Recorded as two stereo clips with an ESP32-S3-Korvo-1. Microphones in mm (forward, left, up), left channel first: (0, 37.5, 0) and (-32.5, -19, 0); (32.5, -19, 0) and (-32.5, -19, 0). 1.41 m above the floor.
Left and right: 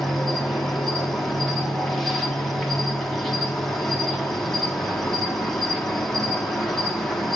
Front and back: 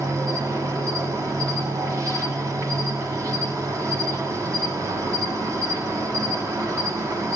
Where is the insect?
145° left, 2 m.